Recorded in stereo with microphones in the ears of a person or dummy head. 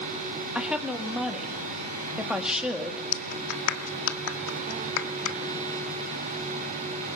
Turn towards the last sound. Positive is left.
turn(degrees=80)